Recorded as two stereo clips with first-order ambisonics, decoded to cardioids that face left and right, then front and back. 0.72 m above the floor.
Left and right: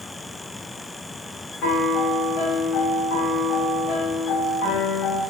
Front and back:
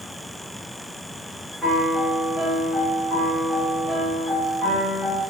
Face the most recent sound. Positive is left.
turn(degrees=90)